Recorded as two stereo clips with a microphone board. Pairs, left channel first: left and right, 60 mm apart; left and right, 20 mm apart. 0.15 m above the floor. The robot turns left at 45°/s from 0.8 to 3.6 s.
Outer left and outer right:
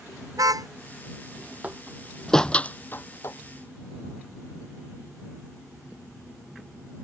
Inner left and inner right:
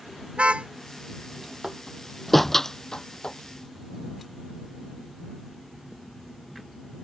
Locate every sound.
0.3 s a car horn: 75° right (ahead or behind)
1.6 s a door slam: 20° right (ahead or behind); by 3.4 s 55° left (ahead or behind)